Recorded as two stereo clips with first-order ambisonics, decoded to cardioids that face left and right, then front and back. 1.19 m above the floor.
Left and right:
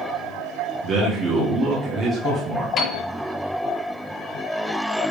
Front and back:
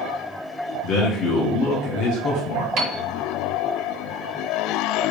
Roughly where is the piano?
Behind left.